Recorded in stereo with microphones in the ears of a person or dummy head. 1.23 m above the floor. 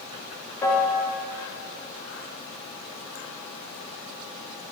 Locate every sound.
0.6 s a piano: 10° left (ahead or behind), 1.1 m